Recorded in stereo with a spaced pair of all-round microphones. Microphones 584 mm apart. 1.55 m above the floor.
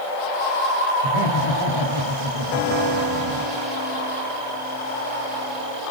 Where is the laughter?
60° right (ahead or behind), 2.5 m.